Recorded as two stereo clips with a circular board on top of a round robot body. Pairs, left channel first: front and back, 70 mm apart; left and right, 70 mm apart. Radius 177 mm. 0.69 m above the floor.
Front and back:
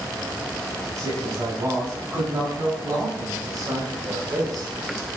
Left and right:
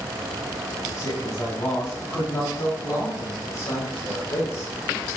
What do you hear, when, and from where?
0.9 s a man speaking: 130° left, 7.5 m; by 4.7 s 140° left, 3.5 m